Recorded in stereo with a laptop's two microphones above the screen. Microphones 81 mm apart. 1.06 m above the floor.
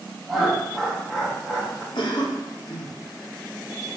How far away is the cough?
About 1.2 m.